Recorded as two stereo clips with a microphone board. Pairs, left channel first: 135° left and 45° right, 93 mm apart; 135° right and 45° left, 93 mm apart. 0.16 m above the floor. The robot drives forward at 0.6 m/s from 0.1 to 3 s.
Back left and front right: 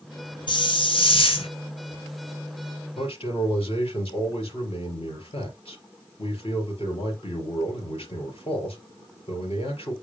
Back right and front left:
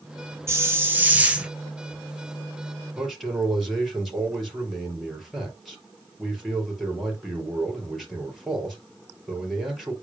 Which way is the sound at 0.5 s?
105° left.